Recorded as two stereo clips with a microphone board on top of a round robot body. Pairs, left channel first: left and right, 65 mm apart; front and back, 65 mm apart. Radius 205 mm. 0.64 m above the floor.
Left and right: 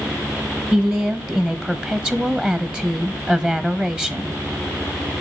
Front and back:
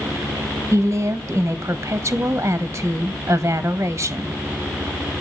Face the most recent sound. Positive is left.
turn(degrees=-155)